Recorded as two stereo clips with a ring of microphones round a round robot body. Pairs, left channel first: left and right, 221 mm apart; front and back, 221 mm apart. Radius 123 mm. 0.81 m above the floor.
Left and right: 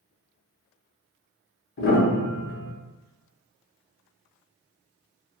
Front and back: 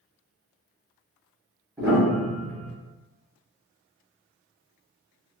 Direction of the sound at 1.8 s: 105° left.